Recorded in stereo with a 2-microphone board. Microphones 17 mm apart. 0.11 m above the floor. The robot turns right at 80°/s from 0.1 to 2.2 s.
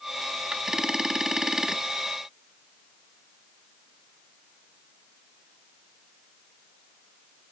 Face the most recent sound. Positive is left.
No sound to turn to.